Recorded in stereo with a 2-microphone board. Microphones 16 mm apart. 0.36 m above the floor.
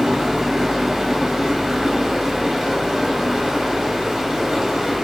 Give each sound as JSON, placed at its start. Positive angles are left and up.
{"t": 0.0, "sound": "running water", "side_deg": -50, "distance_m": 1.2}